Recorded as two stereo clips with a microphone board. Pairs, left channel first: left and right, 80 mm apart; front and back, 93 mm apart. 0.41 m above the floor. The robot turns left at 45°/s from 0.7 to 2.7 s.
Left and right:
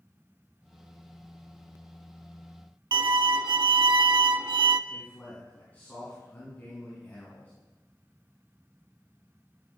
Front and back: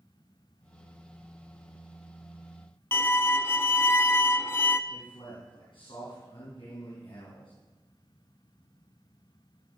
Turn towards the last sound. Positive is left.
turn(degrees=25)